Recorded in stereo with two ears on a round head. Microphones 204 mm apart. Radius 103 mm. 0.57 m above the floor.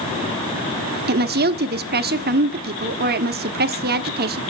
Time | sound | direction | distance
1.1 | a woman speaking | 45° right (ahead or behind) | 0.9 m